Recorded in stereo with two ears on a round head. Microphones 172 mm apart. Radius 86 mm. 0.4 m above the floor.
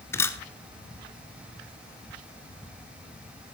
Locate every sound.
0.1 s a camera shutter: 15° left (ahead or behind), 0.9 m